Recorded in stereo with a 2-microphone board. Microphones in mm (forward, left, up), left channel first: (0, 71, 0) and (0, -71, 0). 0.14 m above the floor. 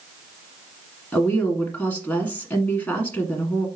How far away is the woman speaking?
About 1.2 m.